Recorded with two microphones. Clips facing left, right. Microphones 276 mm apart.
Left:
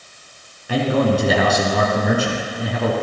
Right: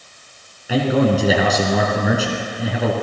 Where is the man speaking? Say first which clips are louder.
Right 1 dB; 5° right (ahead or behind), 1.9 m.